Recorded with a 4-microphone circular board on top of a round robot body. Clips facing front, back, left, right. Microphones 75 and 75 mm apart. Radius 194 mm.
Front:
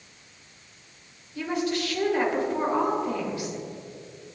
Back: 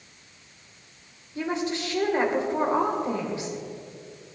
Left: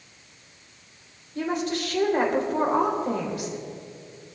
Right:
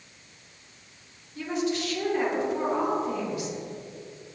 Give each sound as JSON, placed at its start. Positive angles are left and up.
{"t": 1.4, "sound": "a woman speaking", "azimuth_deg": 120, "distance_m": 3.0}